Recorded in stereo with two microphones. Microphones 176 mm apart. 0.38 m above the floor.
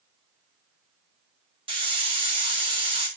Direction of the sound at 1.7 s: 30° right (ahead or behind).